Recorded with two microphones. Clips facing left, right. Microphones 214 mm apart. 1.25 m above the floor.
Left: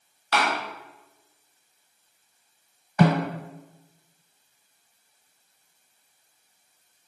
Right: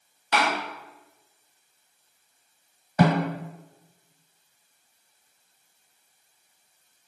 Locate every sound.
0.3 s a door slam: 20° right (ahead or behind), 0.9 m
3.0 s a snare drum: 30° right (ahead or behind), 1.2 m